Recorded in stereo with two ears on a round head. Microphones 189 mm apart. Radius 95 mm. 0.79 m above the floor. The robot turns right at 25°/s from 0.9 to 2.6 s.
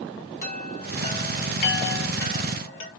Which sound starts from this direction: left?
A chime, at 0.4 s.